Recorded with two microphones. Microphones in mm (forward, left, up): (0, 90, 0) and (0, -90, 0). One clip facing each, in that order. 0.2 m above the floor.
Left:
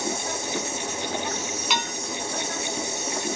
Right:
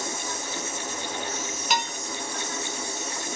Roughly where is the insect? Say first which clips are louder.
Left 4 dB; left.